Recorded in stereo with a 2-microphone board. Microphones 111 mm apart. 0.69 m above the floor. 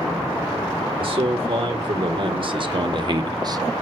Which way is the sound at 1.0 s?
55° right (ahead or behind).